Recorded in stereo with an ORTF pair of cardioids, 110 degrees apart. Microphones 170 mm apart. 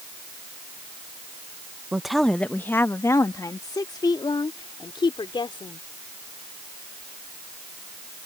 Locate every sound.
1.9 s a woman speaking: 5° right; by 5.8 s 30° left